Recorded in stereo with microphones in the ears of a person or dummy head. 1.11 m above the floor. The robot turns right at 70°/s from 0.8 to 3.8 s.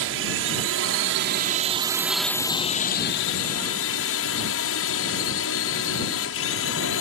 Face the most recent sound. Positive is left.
turn(degrees=110)